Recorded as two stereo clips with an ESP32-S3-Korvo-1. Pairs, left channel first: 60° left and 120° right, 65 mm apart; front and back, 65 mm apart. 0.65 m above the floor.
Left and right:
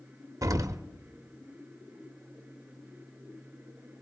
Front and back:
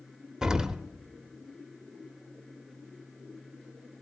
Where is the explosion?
100° right, 0.6 m.